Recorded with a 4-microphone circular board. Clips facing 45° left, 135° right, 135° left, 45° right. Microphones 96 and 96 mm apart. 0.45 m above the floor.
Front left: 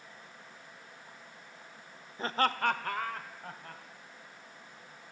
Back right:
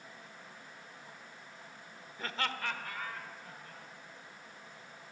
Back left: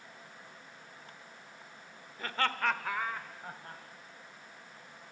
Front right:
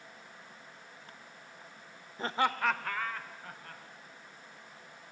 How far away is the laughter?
About 1.0 m.